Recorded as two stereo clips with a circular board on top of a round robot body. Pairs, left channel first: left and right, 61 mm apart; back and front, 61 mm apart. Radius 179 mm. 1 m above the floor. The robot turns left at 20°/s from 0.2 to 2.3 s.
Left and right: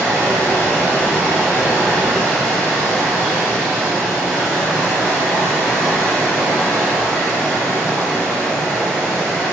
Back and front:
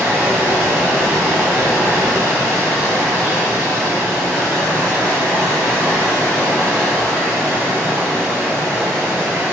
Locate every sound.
0.0 s running water: 135° right, 1.6 m; by 9.5 s straight behind, 1.6 m